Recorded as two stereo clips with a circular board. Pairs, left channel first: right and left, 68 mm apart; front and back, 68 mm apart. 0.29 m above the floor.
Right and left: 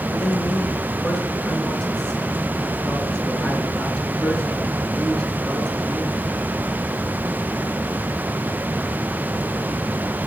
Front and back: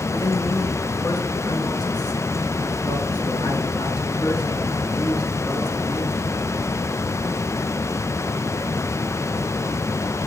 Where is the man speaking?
10° right, 3.5 m.